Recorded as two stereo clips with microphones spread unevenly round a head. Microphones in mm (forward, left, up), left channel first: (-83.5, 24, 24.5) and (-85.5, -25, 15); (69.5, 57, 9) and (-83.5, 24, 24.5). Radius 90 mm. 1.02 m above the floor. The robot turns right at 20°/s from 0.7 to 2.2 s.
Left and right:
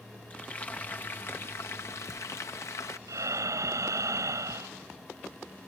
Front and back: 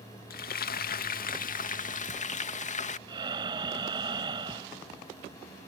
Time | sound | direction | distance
0.3 | frying | 15° left | ?
3.1 | breathing | 100° right | ?